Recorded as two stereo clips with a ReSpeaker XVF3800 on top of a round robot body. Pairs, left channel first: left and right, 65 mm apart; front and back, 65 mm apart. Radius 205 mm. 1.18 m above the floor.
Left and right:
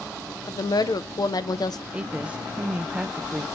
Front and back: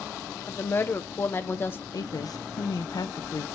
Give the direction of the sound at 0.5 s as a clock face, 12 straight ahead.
10 o'clock.